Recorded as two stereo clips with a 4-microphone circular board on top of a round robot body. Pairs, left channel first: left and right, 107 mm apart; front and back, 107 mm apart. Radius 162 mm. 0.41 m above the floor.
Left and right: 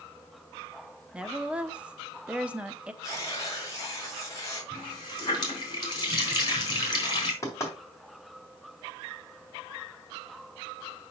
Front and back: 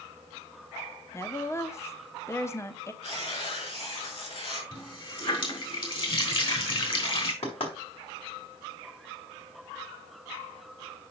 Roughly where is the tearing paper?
Ahead left.